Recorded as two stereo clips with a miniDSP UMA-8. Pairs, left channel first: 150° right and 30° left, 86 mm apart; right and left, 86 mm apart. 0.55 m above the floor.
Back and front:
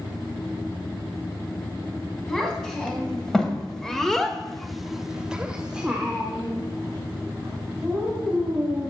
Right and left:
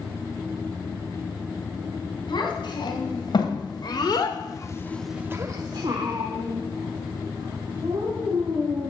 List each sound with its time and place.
2.3 s a child speaking: 65° right, 3.5 m; by 8.9 s 110° left, 5 m